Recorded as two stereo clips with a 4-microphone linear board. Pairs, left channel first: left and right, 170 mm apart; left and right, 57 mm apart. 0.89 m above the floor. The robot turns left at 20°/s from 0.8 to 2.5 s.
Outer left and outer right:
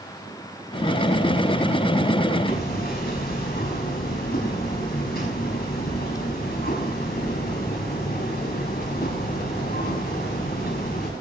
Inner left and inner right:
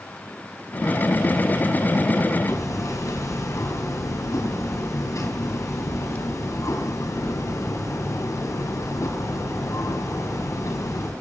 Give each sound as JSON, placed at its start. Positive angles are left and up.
{"t": 2.5, "sound": "hammering", "side_deg": 65, "distance_m": 5.5}